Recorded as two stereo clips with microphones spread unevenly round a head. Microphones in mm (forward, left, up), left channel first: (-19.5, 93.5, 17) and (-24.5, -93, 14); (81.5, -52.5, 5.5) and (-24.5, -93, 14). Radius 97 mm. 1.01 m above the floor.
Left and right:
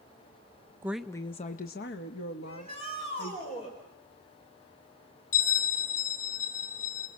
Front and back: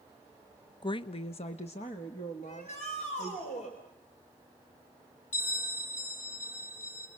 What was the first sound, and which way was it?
A woman speaking, 15° right.